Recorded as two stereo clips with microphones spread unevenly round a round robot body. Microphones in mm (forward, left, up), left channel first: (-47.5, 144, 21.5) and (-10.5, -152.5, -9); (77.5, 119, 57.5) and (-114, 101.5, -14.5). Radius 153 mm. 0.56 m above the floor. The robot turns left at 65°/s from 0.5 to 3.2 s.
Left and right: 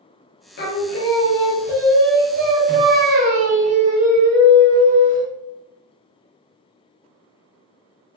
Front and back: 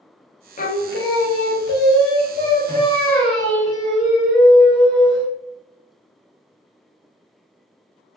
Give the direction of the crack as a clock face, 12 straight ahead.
I don't hear a crack.